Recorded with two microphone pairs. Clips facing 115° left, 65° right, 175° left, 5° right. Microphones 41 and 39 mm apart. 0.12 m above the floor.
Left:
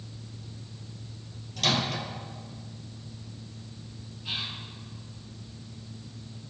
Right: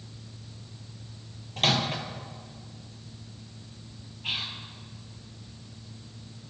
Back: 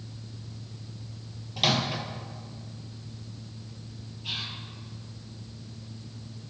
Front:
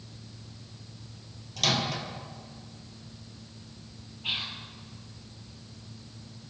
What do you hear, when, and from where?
1.6 s a microwave: 110° right, 1.9 m
4.2 s whispering: 50° right, 2.5 m